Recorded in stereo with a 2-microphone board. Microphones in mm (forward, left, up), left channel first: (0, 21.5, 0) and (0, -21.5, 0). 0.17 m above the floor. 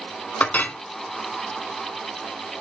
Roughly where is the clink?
Left.